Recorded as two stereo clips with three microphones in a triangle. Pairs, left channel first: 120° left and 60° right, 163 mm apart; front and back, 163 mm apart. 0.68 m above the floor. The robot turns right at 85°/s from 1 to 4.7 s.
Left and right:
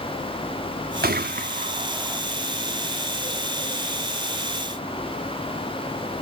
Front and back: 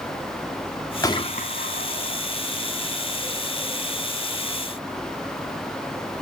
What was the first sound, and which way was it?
A gunshot, 70° right.